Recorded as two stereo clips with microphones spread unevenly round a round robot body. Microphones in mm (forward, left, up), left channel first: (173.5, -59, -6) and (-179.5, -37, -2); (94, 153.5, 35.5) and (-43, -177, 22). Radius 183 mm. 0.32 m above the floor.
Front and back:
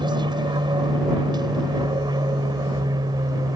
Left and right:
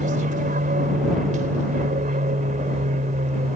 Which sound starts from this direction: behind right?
An aircraft, at 0.0 s.